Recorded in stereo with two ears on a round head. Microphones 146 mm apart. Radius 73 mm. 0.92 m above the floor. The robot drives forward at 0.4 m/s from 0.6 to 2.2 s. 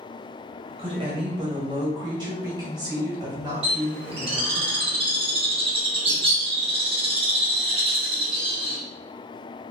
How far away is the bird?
About 1.1 m.